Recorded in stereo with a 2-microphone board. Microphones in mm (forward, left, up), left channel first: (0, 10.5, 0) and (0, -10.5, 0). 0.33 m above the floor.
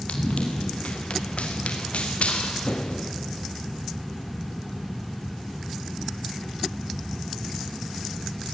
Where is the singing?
I don't hear singing.